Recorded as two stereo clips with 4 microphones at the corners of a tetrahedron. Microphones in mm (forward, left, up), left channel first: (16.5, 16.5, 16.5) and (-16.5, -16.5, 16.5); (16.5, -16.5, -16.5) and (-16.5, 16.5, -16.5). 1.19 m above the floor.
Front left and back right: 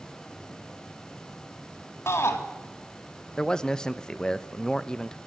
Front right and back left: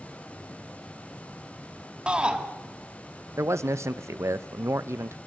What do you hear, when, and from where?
2.1 s a shout: 65° left, 2.5 m
3.4 s a man speaking: 120° left, 0.8 m